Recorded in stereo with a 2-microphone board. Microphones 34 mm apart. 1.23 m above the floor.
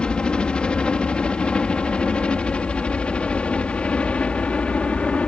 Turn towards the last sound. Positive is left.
turn(degrees=40)  # may be behind; listen again after turning